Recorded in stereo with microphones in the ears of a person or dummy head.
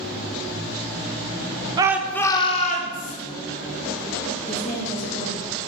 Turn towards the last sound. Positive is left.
turn(degrees=45)  # may be behind; listen again after turning